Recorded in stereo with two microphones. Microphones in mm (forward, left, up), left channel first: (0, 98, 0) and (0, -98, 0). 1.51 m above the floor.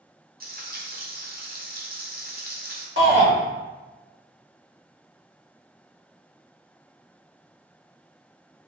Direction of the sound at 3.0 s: 75° right (ahead or behind).